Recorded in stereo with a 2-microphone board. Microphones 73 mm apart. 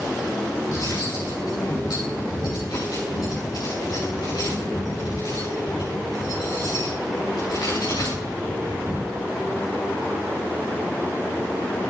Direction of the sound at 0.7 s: 70° left (ahead or behind).